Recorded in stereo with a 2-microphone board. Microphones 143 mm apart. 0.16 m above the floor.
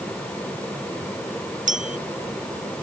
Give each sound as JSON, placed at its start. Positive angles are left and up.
{"t": 1.7, "sound": "a clink", "side_deg": -65}